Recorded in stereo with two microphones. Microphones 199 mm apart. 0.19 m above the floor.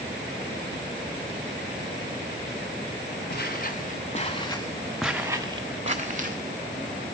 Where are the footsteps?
55° left (ahead or behind), 1.4 m; by 6.4 s 45° right (ahead or behind), 1.3 m.